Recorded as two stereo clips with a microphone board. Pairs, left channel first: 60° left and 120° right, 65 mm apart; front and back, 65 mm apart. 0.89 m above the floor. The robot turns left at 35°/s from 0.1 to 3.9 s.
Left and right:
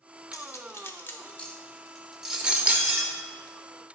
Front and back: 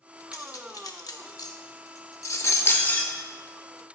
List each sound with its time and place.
0.3 s cutlery clinking: 25° left, 0.6 m; by 3.1 s 70° right, 0.6 m